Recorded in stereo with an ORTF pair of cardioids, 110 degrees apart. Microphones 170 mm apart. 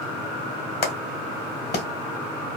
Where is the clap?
70° left, 1.6 m.